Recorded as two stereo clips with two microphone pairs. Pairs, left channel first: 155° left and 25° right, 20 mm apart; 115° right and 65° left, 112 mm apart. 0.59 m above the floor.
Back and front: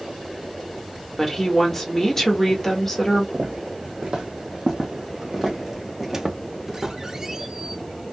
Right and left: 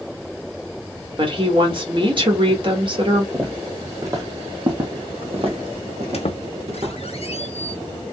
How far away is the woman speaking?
About 1.6 m.